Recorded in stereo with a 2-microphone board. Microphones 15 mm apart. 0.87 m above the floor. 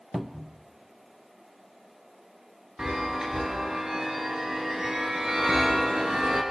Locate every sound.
0.1 s a cupboard door: 15° right (ahead or behind), 0.7 m
2.8 s a chime: 75° right (ahead or behind), 4.5 m